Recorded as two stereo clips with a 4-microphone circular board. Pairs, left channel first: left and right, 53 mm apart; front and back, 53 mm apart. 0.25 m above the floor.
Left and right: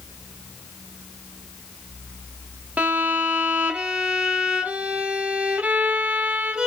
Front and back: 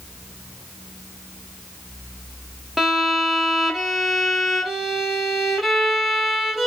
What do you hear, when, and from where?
2.8 s a violin: 105° right, 0.6 m